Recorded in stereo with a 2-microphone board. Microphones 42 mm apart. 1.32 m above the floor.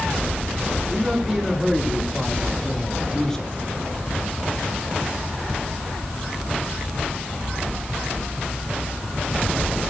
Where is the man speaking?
10° right (ahead or behind), 4.5 m; by 3.5 s 15° left (ahead or behind), 3.5 m.